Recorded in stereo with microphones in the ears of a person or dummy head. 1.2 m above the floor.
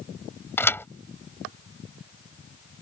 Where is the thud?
10° left (ahead or behind).